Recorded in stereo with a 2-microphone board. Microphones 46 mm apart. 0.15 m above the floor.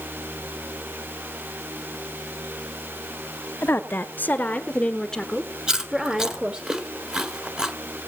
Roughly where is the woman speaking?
Left.